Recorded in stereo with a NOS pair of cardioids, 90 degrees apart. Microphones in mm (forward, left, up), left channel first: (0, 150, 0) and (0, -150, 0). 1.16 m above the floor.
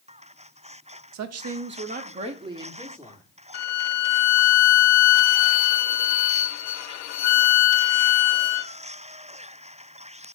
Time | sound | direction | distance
1.1 | a woman speaking | 70° right | 1.0 m
3.5 | a violin | 65° left | 0.5 m